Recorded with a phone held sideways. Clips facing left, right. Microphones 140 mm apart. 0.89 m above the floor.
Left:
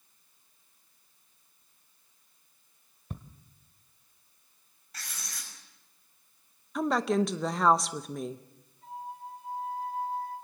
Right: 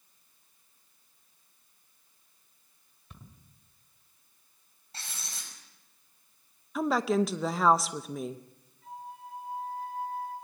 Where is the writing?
30° right (ahead or behind), 5.5 m.